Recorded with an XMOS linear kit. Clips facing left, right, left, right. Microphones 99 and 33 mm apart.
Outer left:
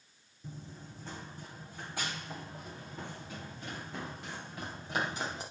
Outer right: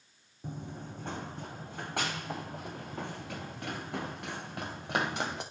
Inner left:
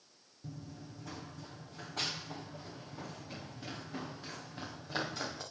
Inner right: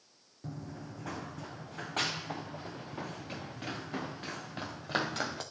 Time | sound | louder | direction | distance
0.4 | running footsteps | outer right 6 dB, inner right 5 dB | 60° right (ahead or behind) | 1.1 m